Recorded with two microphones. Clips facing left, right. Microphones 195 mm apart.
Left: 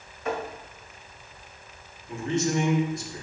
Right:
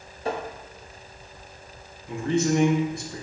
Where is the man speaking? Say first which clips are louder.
Right 3 dB; 60° right (ahead or behind), 1.2 m.